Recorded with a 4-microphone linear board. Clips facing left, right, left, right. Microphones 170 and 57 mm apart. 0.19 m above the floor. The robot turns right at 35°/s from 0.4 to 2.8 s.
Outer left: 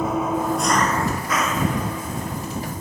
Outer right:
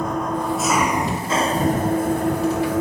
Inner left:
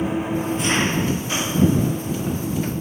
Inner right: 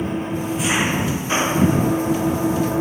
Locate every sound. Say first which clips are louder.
0.0 s an engine running: outer left 1 dB, inner left 1 dB; 175° left; by 2.8 s 100° right